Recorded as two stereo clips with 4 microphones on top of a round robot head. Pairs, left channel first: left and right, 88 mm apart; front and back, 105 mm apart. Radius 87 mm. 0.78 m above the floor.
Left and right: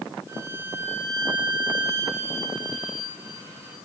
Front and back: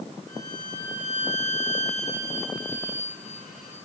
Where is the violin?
30° right, 9 m.